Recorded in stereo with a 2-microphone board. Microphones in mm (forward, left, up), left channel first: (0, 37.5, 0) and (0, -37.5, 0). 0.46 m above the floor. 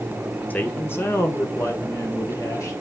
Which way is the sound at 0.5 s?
20° left (ahead or behind).